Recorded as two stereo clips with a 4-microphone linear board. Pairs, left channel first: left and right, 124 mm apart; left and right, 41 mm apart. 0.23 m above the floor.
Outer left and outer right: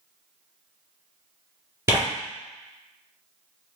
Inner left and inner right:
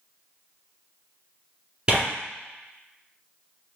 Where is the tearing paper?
20° right (ahead or behind), 1.8 m.